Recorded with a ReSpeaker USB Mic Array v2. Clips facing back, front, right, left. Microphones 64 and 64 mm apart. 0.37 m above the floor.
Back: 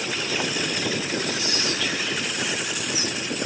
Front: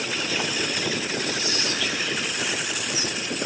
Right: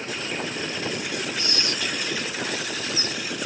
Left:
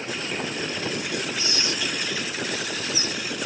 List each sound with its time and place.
1.4 s whispering: 90° right, 1.3 m